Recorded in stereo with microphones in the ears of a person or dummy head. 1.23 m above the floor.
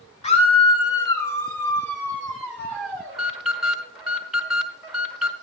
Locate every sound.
0.2 s a scream: 30° left (ahead or behind), 0.7 m; by 3.2 s 5° left (ahead or behind), 2 m
3.1 s an alarm: 10° right (ahead or behind), 1.2 m